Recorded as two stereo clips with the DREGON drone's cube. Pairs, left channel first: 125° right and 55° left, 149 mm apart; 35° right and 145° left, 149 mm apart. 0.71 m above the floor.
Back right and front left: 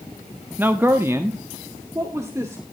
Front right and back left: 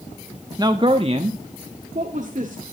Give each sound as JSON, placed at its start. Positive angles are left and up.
{"t": 0.6, "sound": "a man speaking", "azimuth_deg": 120, "distance_m": 0.9}